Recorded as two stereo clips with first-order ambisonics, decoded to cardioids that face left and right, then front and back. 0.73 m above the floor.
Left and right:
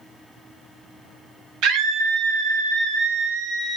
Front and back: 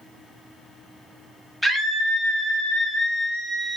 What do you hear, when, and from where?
1.6 s a scream: 95° right, 0.7 m